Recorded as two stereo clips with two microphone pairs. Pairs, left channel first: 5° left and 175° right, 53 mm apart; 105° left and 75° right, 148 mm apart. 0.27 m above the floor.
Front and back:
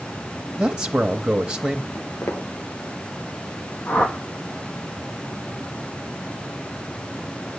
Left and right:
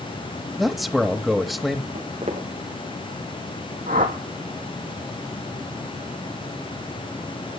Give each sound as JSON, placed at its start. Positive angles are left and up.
{"t": 0.6, "sound": "a man speaking", "azimuth_deg": -155, "distance_m": 0.9}
{"t": 1.9, "sound": "footsteps", "azimuth_deg": -35, "distance_m": 4.5}
{"t": 3.9, "sound": "a whoosh", "azimuth_deg": -60, "distance_m": 2.5}